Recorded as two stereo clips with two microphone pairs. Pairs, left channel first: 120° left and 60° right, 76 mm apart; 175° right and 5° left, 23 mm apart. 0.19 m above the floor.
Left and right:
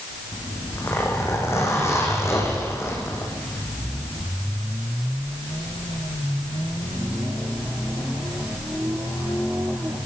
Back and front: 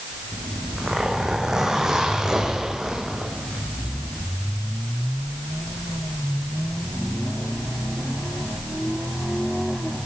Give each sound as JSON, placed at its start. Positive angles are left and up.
{"t": 0.3, "sound": "a zipper", "azimuth_deg": 70, "distance_m": 8.0}